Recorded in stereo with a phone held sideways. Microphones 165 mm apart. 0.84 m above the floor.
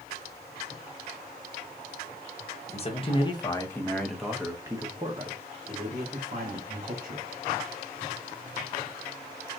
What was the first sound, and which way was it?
A man speaking, 40° left (ahead or behind).